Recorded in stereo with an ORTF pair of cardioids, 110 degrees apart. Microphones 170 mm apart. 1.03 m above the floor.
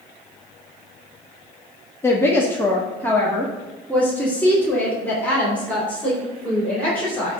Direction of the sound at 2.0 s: 15° left.